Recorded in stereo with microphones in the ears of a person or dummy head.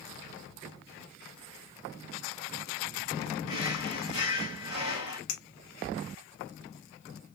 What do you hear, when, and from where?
3.5 s a drawer: 75° left (ahead or behind), 2 m
5.3 s a clink: 75° left (ahead or behind), 0.9 m